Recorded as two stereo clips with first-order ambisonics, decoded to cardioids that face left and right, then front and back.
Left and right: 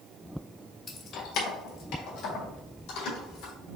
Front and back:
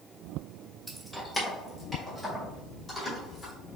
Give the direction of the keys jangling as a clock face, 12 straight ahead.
8 o'clock.